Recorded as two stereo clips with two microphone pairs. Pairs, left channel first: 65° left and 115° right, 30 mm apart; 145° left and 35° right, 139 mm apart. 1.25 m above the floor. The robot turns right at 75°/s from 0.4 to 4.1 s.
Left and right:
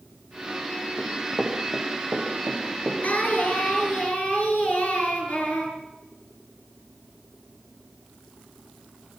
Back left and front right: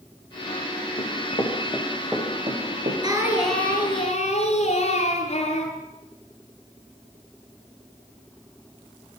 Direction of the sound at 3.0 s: 25° left.